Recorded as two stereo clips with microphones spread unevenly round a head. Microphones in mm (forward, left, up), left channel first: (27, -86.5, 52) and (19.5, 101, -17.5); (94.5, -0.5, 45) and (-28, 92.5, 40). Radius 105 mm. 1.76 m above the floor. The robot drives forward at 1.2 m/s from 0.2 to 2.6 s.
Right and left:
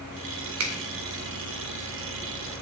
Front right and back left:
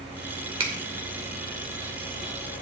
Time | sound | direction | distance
0.6 | a finger snap | 90° left | 2 m